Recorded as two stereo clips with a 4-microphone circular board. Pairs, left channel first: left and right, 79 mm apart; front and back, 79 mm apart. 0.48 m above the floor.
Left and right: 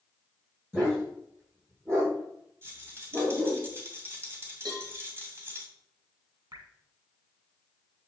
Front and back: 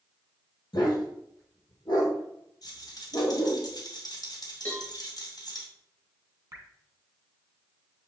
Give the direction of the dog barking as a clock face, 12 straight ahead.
1 o'clock.